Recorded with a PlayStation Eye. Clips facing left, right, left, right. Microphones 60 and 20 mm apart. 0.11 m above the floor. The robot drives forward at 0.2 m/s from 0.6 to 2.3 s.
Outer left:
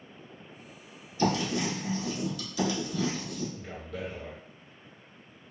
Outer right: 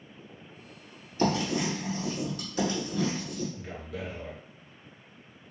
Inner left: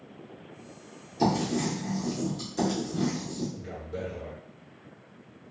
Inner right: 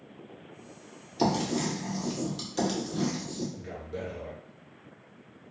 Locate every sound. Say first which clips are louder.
1.2 s writing: outer right 1 dB, inner left 1 dB; 45° right (ahead or behind), 1.8 m
3.5 s a man speaking: even, inner left 1 dB; 5° right (ahead or behind), 1.9 m